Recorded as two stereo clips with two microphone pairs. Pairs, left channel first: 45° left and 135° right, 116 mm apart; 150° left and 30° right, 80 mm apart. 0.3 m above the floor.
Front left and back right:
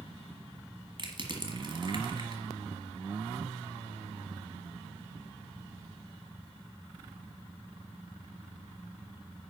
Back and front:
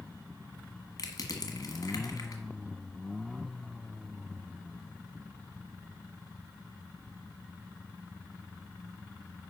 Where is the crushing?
175° right, 1.5 m.